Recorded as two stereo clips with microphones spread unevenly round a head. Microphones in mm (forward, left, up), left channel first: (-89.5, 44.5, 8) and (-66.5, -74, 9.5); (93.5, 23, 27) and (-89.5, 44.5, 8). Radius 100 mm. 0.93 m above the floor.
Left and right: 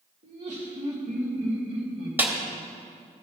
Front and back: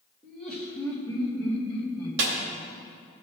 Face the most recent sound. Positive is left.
turn(degrees=-155)